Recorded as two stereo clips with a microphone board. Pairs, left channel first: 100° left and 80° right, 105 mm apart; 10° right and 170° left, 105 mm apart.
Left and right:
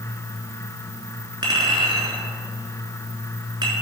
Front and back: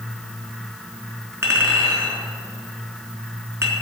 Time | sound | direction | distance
1.4 | a clink | 125° right | 3.5 m